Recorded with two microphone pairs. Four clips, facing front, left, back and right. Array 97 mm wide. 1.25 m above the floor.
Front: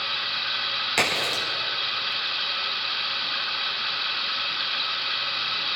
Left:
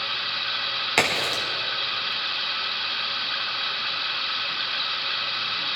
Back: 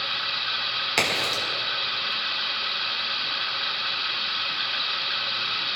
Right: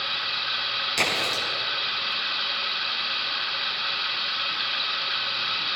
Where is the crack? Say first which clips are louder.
Left 4 dB, even; 105° left, 5 m.